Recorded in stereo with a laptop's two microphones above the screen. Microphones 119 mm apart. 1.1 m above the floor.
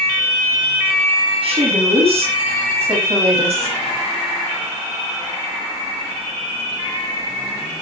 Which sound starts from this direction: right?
A woman speaking, at 1.4 s.